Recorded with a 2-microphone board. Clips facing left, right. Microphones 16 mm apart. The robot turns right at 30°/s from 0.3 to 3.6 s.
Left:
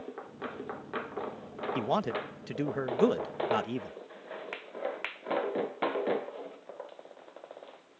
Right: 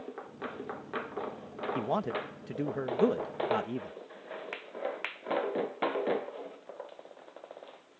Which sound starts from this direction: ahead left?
A man speaking, at 1.8 s.